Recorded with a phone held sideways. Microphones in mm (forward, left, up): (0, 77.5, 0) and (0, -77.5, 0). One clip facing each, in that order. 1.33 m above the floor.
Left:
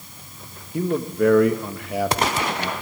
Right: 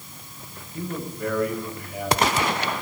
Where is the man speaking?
85° left, 1.7 m.